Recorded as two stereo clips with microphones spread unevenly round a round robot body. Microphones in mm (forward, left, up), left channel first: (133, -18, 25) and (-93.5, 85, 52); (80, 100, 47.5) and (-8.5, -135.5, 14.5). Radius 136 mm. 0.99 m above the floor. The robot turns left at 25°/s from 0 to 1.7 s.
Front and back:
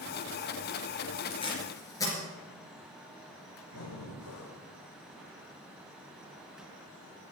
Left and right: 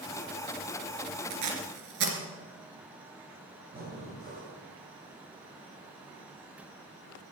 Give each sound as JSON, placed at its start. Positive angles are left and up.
{"t": 1.3, "sound": "tape being pulled", "azimuth_deg": -95, "distance_m": 3.0}
{"t": 3.7, "sound": "breathing", "azimuth_deg": -55, "distance_m": 4.0}